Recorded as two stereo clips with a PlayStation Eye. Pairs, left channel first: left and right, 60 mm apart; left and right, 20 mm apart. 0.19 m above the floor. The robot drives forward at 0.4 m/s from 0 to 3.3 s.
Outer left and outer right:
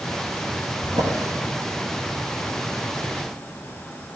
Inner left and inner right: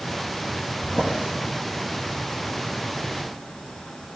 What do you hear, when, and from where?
0.8 s a drawer: 60° right (ahead or behind), 5 m